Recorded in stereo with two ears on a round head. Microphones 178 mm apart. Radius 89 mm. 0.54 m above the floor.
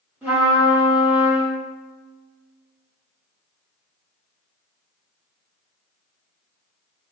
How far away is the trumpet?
About 1.8 m.